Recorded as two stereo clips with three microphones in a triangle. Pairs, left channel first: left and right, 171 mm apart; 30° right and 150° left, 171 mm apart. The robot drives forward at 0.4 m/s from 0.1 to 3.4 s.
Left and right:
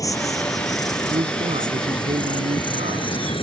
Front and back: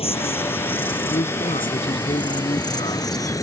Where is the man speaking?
50° right; by 3.4 s 80° right.